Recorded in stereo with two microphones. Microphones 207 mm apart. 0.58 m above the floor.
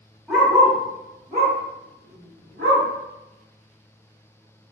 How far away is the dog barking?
About 1.1 m.